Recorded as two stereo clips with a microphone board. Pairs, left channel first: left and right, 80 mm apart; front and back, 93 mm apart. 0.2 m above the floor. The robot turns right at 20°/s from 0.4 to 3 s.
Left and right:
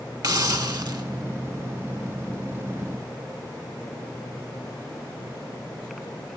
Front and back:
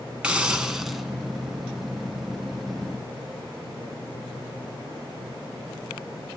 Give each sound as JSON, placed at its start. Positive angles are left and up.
{"t": 0.2, "sound": "a hiss", "azimuth_deg": -105, "distance_m": 0.7}